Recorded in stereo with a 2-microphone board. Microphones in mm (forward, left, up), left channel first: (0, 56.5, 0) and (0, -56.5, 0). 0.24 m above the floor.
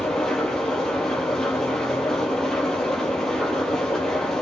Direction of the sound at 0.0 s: 5° left (ahead or behind).